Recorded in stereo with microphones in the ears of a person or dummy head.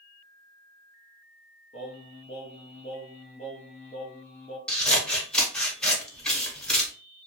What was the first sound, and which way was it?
Singing, 35° left (ahead or behind).